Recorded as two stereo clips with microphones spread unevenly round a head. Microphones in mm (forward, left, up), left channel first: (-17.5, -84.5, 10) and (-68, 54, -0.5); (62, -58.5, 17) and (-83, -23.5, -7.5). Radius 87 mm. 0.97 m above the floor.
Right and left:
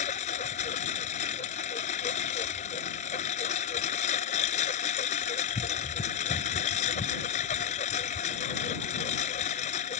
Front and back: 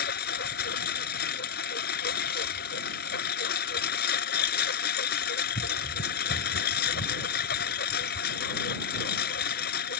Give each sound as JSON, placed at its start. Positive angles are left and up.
{"t": 0.0, "sound": "a lawn mower", "azimuth_deg": -15}